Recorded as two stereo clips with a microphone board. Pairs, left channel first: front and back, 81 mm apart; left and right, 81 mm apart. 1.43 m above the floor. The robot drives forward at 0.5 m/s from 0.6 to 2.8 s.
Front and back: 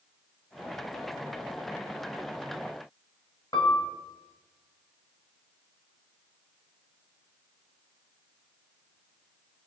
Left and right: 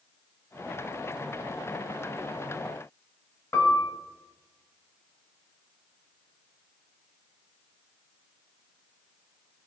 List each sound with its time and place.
3.5 s a piano: 30° left, 0.6 m